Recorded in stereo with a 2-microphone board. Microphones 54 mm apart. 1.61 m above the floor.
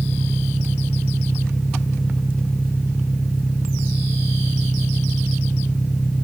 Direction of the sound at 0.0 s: 15° left (ahead or behind).